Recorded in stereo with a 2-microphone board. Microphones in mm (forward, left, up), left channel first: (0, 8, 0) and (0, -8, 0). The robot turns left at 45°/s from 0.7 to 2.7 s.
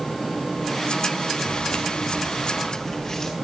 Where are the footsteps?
70° left (ahead or behind), 2.5 m; by 3.3 s 35° left (ahead or behind), 4.5 m.